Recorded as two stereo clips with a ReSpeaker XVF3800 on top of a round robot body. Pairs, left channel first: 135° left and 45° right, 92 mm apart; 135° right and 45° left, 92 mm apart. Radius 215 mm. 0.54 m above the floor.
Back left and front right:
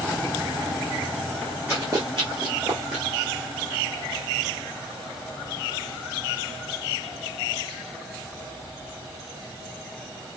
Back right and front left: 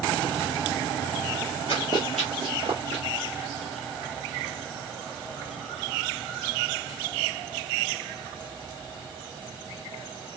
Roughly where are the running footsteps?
Behind right.